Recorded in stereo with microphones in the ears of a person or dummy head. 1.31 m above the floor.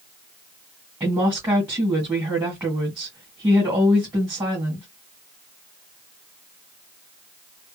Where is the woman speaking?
10° right (ahead or behind), 1.6 m.